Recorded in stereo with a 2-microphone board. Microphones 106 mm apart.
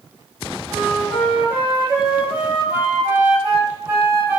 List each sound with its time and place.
0.7 s a flute: 20° right (ahead or behind), 0.8 m